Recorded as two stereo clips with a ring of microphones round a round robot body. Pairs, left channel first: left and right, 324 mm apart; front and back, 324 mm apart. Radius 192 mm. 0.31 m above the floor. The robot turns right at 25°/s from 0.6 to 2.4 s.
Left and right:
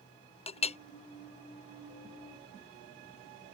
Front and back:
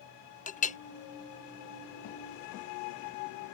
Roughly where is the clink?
Ahead left.